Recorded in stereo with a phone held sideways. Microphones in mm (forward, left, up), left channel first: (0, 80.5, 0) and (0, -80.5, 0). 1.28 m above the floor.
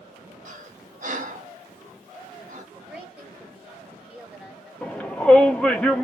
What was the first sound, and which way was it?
Breathing, 55° right (ahead or behind).